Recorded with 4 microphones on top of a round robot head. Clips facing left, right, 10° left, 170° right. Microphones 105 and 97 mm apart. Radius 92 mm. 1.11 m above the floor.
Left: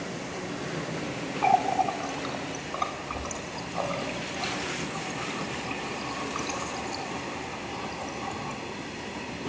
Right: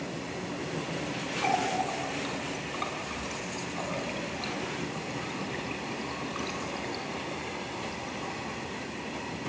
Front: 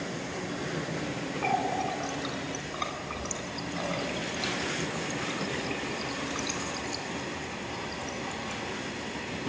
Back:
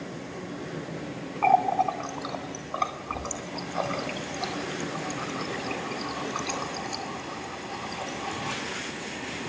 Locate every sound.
1.4 s a running tap: 150° left, 2.5 m